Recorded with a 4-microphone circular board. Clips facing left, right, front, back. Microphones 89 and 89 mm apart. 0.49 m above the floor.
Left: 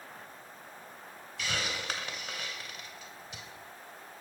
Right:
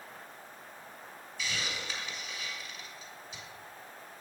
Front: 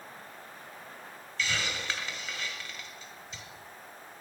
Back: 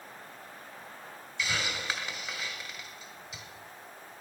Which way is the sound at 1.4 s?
100° left.